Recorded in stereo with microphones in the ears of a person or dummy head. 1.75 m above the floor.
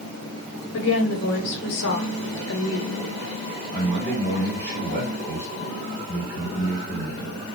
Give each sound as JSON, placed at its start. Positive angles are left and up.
{"t": 0.7, "sound": "a woman speaking", "side_deg": 60, "distance_m": 0.7}
{"t": 3.7, "sound": "a man speaking", "side_deg": -50, "distance_m": 1.5}